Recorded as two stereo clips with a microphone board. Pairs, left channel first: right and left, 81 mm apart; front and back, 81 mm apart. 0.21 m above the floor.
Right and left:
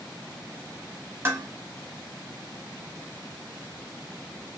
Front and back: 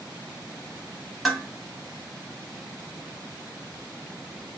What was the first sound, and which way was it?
Dishes clattering, 90° left.